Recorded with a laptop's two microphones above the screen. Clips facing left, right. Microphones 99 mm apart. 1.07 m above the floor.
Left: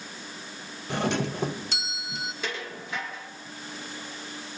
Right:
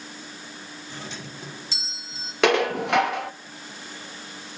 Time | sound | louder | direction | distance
0.9 | a doorbell | left 13 dB | 65° left (ahead or behind) | 1.2 m
2.4 | dishes clattering | right 15 dB | 75° right (ahead or behind) | 0.7 m